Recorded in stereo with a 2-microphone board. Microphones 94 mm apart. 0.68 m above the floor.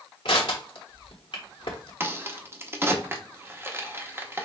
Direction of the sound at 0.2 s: 65° left (ahead or behind).